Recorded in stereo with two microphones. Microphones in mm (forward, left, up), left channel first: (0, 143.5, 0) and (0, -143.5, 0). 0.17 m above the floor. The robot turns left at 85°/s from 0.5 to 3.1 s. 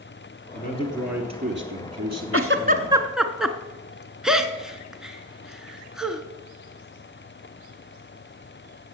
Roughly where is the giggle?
Right.